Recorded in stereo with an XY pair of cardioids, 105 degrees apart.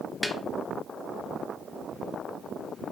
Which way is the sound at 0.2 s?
5° left.